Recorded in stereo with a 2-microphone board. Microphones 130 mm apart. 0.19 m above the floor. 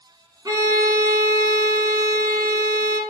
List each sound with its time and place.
0.5 s a violin: 30° right (ahead or behind), 1.2 m